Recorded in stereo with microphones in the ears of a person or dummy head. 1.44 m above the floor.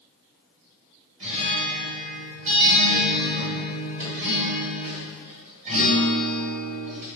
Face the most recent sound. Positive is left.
turn(degrees=-45)  # may be behind; listen again after turning